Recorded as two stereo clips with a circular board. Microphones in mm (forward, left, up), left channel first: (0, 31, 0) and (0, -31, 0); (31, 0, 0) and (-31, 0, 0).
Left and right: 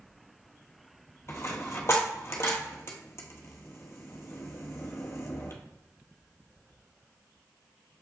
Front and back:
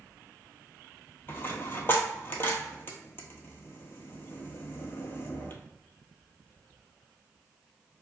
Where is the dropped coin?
50° left, 1.1 m.